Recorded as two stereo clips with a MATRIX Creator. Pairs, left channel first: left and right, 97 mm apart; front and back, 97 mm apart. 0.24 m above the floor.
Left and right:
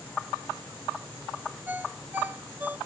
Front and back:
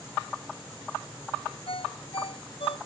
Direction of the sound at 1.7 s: 20° right.